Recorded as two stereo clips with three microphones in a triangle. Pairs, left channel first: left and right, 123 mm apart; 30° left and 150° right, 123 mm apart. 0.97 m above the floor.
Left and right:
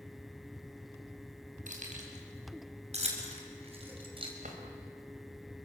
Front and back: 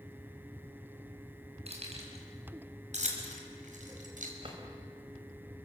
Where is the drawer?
105° right, 3.5 m.